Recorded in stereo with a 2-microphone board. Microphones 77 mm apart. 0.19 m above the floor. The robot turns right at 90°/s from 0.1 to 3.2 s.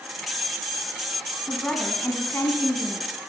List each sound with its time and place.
1.5 s a woman speaking: 10° right, 1.4 m; by 3.2 s 145° left, 1.4 m